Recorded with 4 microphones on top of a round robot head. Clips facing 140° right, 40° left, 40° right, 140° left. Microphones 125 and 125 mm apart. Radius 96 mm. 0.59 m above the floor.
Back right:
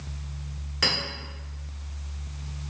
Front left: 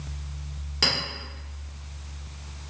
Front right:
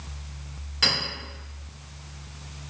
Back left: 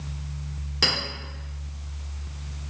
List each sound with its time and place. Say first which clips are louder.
0.8 s a clink: front left 1 dB, back left 1 dB; 95° left, 1.5 m